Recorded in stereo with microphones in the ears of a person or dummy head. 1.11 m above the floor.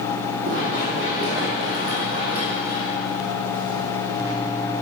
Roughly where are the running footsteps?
Right.